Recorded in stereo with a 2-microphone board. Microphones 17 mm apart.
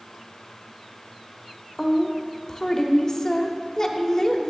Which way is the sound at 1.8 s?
35° left (ahead or behind).